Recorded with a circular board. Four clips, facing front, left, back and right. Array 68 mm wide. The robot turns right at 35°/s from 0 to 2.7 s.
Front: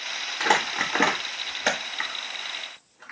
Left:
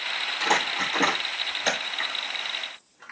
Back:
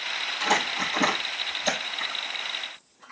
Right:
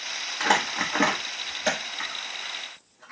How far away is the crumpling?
About 1.3 m.